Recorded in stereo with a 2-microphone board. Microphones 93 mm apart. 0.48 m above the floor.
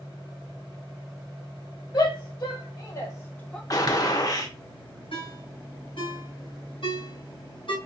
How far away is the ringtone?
About 1.9 m.